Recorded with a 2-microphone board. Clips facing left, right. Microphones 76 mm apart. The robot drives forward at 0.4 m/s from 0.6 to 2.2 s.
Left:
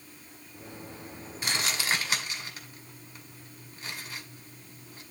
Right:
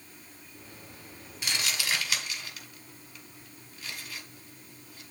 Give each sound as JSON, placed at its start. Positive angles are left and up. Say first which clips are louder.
{"t": 1.4, "sound": "crumpling", "louder": "left 2 dB", "side_deg": 40, "distance_m": 1.9}